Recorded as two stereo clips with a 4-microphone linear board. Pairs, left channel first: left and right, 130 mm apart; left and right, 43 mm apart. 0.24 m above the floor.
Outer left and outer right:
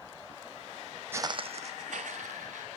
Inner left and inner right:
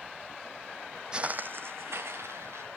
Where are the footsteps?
20° right (ahead or behind), 0.5 m; by 2.7 s 80° right, 1.9 m.